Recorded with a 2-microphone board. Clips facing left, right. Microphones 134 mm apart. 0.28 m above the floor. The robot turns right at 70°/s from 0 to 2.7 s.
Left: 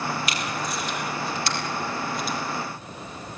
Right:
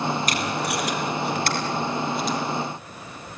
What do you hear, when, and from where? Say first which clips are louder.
0.3 s tape being pulled: right 4 dB; 45° right (ahead or behind), 4 m; by 2.4 s 10° left (ahead or behind), 4 m